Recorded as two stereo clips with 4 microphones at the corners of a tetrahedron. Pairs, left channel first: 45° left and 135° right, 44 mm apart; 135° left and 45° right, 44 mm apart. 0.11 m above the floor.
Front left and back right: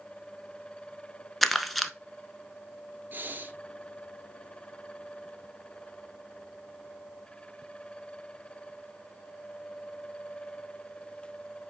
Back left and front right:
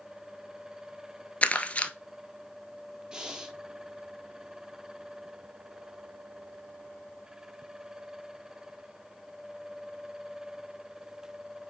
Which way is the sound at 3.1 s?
110° right.